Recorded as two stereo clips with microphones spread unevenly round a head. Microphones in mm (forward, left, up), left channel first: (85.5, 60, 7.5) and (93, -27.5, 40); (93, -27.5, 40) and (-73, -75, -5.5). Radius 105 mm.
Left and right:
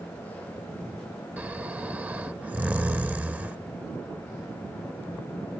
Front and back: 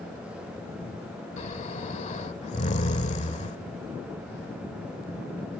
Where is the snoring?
25° right.